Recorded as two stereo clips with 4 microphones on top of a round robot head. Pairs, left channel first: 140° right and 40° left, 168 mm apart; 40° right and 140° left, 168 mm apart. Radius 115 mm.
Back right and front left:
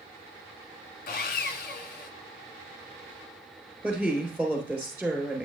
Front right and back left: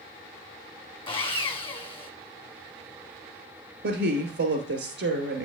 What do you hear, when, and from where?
1.1 s sawing: 100° right, 1.0 m
3.8 s a woman speaking: 120° left, 3.5 m